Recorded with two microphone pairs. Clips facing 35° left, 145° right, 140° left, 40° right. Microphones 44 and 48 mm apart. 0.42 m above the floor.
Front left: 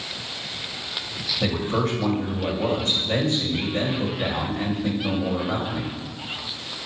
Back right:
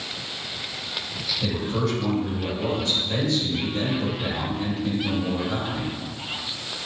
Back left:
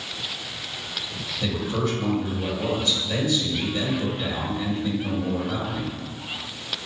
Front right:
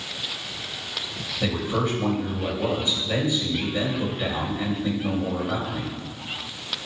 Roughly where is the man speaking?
Ahead left.